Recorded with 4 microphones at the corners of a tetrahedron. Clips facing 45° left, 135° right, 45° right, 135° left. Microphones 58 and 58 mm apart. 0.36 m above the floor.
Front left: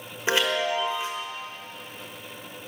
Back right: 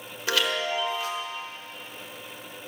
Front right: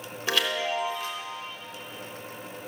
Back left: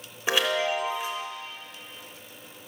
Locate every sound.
0.3 s a chime: 85° left, 1.2 m